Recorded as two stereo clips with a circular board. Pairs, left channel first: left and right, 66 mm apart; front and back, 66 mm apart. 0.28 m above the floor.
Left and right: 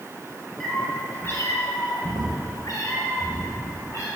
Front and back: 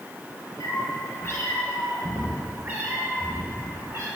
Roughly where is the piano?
No piano in this recording.